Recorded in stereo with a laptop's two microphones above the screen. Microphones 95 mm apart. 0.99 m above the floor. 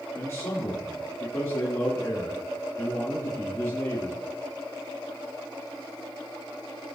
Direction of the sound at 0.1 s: 35° left (ahead or behind).